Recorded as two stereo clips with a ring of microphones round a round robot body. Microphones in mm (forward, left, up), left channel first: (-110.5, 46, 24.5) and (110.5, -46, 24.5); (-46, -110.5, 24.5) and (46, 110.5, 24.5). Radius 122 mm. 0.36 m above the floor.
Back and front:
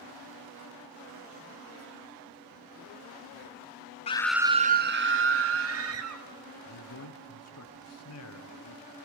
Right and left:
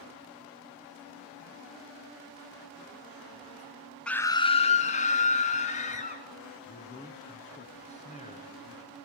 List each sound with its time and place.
4.1 s a scream: 165° left, 0.8 m; by 6.2 s 50° right, 3 m
6.7 s a man speaking: 175° right, 3.5 m